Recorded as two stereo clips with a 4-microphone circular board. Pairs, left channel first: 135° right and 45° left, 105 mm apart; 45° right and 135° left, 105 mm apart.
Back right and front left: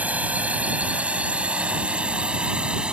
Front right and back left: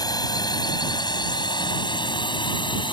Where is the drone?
25° right; by 2.9 s 35° right.